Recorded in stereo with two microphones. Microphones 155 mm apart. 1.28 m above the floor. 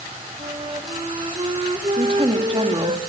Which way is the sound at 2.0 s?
35° right (ahead or behind).